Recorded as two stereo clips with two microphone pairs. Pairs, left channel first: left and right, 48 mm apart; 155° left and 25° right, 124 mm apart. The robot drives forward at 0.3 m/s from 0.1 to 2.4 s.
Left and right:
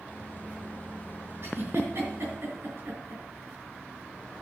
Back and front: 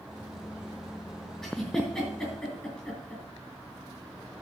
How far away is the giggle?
About 5 m.